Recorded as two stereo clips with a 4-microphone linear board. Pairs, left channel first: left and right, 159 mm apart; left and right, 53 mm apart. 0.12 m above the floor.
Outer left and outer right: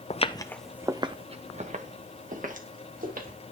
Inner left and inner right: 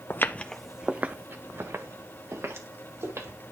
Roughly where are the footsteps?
Left.